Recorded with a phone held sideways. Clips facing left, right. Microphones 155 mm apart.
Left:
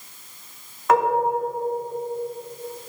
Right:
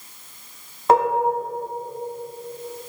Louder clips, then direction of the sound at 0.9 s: Right 1 dB; 30° right (ahead or behind).